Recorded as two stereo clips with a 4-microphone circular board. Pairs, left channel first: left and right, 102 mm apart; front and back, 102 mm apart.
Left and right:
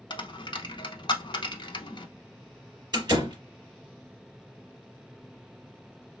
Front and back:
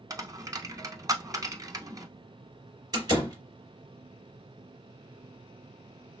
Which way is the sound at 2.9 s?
135° right.